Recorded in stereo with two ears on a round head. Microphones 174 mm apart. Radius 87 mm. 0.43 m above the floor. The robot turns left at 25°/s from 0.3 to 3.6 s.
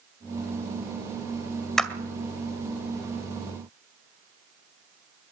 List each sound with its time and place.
1.8 s a clap: 5° left (ahead or behind), 2.0 m; by 1.9 s centre (ahead or behind), 2.0 m